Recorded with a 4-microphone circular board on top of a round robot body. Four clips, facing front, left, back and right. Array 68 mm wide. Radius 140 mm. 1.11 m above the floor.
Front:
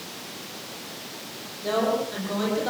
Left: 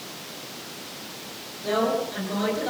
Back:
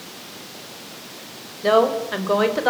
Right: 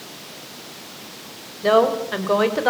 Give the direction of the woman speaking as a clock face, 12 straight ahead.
4 o'clock.